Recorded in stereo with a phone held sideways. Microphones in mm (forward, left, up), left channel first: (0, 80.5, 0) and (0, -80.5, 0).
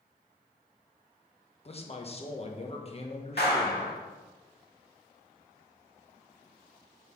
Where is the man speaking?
40° left (ahead or behind), 1.2 m.